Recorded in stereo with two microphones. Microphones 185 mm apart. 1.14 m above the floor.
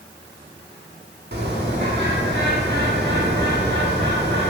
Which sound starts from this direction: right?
A bird, at 1.3 s.